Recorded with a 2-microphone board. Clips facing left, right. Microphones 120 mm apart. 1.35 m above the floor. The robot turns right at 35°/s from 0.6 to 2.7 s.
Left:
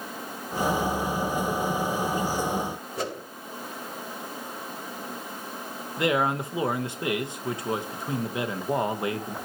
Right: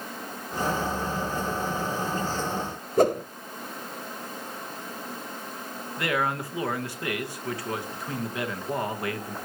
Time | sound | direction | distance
3.0 | a whoosh | 45° right (ahead or behind) | 0.7 m
6.0 | a man speaking | 20° left (ahead or behind) | 1.2 m